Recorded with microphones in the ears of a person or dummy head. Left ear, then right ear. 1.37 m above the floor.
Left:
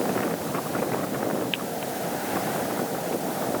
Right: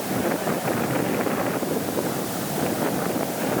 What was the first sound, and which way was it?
Only background noise.